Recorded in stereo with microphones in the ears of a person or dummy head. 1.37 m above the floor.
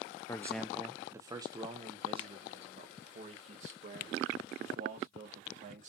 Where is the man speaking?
15° left (ahead or behind), 0.6 m; by 5.9 s 40° right (ahead or behind), 3 m.